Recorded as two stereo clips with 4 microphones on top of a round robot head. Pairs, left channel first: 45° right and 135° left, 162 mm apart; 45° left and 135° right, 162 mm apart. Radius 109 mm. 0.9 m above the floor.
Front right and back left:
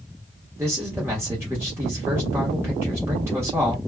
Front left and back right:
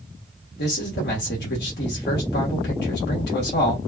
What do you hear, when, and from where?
0.6 s a man speaking: 55° left, 1.1 m